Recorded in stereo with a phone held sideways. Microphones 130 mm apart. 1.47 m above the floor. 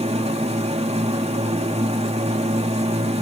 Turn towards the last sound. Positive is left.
turn(degrees=-50)  # may be behind; listen again after turning